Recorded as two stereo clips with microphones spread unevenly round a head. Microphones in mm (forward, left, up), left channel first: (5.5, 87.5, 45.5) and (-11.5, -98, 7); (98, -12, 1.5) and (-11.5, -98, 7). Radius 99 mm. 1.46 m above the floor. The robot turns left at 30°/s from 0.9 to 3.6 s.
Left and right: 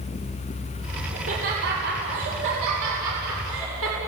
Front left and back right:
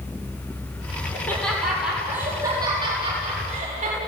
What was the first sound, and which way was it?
Laughter, 35° right.